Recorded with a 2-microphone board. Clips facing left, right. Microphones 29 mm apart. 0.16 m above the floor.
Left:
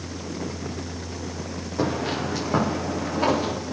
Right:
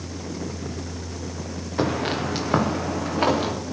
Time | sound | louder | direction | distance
1.8 | footsteps | right 2 dB | 60° right (ahead or behind) | 3 m